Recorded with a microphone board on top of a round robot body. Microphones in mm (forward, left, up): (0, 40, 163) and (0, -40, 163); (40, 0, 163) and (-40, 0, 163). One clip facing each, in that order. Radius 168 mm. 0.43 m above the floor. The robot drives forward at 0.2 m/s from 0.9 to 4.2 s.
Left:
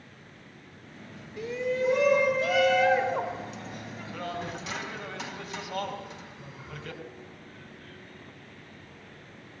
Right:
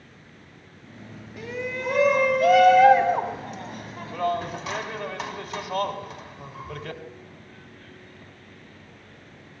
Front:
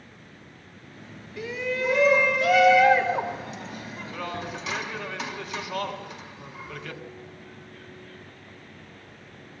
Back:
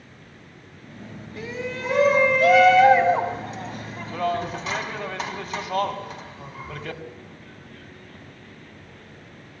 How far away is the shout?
About 4 m.